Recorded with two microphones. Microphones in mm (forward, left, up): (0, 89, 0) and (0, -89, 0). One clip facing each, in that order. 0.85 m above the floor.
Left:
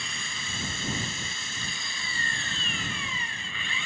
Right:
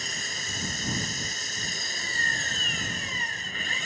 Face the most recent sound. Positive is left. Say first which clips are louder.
# right 2 dB
turn(degrees=-40)  # may be behind; listen again after turning